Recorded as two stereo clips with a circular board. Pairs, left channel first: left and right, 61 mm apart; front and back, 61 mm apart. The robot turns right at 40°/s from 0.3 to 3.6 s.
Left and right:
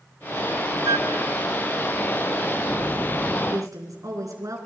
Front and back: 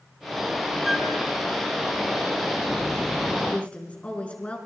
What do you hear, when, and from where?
0.8 s a flute: 95° right, 0.8 m; by 1.1 s 85° right, 0.8 m
3.5 s a woman speaking: 75° right, 4.5 m; by 4.6 s 70° right, 4.5 m